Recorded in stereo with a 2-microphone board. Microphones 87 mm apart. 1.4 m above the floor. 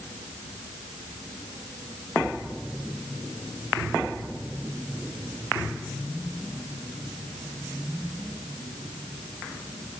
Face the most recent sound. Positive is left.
No sound to turn to.